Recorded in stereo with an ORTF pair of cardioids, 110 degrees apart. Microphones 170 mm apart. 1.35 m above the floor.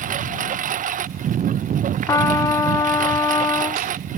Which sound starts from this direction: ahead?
A trumpet, at 2.1 s.